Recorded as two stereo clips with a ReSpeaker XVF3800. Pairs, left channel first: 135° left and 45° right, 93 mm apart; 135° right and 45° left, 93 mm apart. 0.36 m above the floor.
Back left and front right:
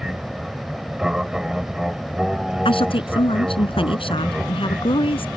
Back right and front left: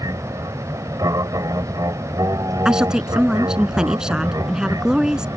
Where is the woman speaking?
130° left.